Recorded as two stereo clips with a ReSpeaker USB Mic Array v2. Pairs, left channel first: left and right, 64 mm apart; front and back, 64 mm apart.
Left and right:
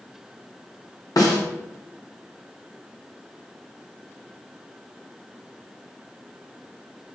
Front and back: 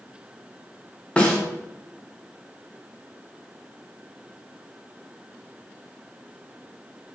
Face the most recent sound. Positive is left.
turn(degrees=70)